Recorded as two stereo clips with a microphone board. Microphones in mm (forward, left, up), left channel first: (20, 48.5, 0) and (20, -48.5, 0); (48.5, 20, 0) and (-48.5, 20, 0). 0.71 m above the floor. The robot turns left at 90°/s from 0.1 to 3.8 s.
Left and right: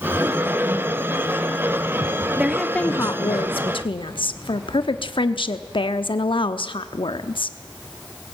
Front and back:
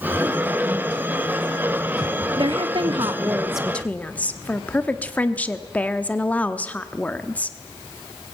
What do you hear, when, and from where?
2.4 s a woman speaking: 155° right, 1.0 m; by 7.6 s 75° left, 1.0 m